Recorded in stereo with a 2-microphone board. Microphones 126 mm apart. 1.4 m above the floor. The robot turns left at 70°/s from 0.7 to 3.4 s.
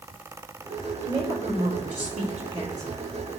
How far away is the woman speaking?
About 4 m.